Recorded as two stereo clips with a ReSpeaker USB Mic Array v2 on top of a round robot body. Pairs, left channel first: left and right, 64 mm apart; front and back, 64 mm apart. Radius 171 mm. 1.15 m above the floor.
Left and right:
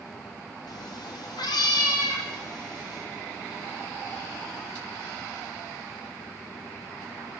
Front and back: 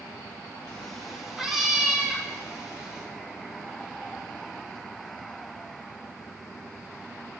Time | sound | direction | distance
0.7 | a cat meowing | 75° left | 0.6 m